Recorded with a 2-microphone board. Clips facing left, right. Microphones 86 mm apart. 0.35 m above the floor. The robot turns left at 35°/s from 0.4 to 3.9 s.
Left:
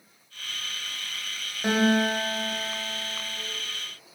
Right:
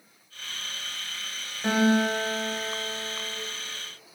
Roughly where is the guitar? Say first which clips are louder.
Even; ahead.